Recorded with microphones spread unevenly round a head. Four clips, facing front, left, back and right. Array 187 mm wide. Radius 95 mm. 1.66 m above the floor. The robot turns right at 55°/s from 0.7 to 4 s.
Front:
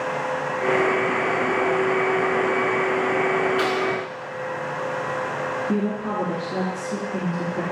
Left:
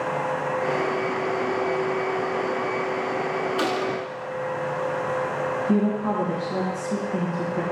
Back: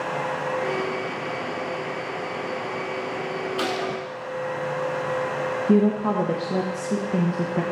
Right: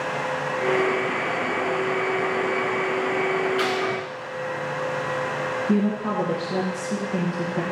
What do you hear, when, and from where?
3.6 s a gunshot: 110° left, 0.9 m; by 4.0 s 135° left, 0.9 m
5.7 s a woman speaking: 165° right, 1.0 m